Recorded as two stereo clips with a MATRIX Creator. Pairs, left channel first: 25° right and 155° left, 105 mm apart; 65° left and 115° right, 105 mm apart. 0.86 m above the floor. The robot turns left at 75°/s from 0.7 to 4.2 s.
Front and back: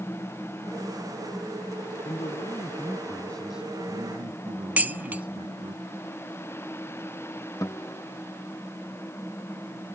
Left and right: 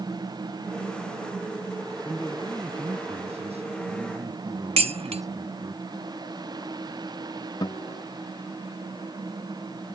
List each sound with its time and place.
2.0 s a man speaking: 5° right; by 5.8 s 170° right
4.8 s dishes clattering: 130° right
7.6 s a guitar: 30° left